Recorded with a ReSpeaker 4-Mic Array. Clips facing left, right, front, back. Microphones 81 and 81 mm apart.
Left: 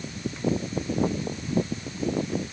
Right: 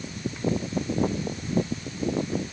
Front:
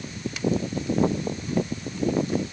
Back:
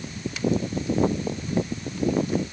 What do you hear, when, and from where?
Only background noise.